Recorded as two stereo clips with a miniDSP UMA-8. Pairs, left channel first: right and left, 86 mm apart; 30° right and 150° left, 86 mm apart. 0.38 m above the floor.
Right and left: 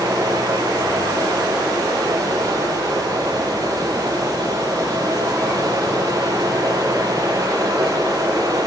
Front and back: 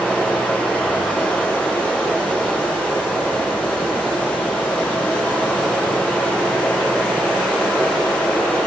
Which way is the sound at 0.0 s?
45° left.